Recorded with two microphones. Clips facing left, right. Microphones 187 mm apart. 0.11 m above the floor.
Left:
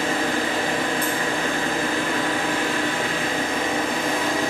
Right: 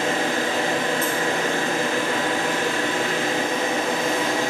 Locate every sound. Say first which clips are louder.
0.0 s an engine running: even; 25° right (ahead or behind), 2.5 m